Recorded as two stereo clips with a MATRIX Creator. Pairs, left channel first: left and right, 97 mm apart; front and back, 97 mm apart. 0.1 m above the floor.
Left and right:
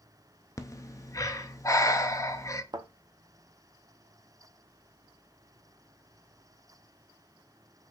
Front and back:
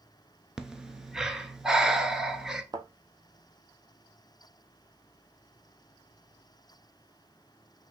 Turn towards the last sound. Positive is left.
turn(degrees=-130)